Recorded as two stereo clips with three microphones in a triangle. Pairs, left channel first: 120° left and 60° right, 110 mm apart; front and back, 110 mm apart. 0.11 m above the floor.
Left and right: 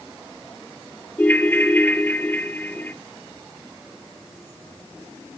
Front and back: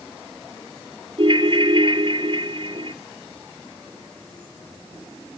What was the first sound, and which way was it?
A ringtone, 170° right.